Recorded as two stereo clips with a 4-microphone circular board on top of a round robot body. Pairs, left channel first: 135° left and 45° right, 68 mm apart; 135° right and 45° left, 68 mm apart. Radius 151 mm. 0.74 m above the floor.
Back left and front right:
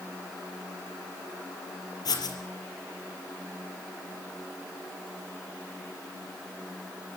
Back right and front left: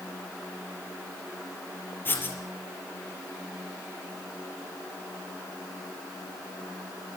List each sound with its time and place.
2.0 s writing: 165° left, 4.5 m